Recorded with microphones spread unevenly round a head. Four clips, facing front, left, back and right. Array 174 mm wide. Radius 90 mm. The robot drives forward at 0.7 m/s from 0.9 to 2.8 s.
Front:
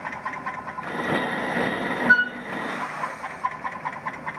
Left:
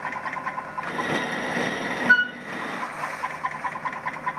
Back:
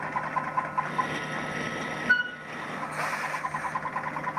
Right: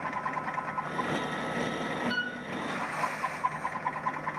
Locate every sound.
2.1 s a flute: 55° left, 0.6 m; by 2.3 s 85° left, 0.6 m